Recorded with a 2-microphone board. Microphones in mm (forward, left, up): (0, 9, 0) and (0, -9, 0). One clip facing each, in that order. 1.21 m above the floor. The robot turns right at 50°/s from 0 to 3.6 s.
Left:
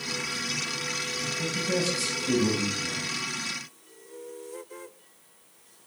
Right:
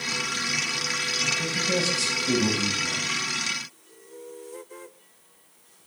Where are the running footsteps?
No running footsteps in this recording.